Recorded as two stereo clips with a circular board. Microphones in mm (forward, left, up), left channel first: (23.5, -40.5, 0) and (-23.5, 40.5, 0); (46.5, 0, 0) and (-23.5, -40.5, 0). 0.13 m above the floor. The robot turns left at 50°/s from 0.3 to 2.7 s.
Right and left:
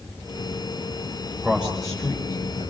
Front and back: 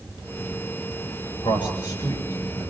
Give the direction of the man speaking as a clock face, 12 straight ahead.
10 o'clock.